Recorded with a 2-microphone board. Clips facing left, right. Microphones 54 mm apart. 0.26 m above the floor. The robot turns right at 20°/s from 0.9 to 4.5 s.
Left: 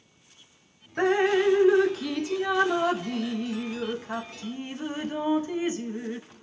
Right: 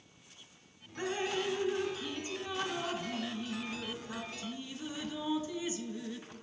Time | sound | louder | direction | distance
1.0 | dripping | left 13 dB | 65° left | 0.5 m